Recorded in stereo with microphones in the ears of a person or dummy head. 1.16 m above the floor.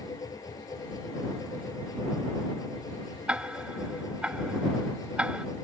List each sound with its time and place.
0.0 s a machine running: 10° left (ahead or behind)
3.3 s ticking: 10° right (ahead or behind)